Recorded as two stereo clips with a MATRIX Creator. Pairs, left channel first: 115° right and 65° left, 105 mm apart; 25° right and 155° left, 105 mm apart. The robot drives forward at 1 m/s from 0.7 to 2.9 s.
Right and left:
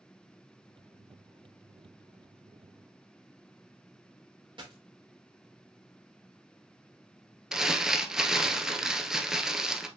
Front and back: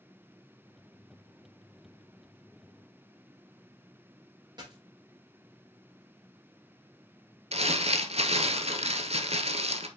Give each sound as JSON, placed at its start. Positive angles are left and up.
{"t": 4.6, "sound": "a dropped coin", "azimuth_deg": 110, "distance_m": 2.5}
{"t": 7.5, "sound": "crumpling", "azimuth_deg": 150, "distance_m": 0.7}